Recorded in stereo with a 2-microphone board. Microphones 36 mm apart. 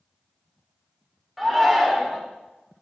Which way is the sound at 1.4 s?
5° right (ahead or behind).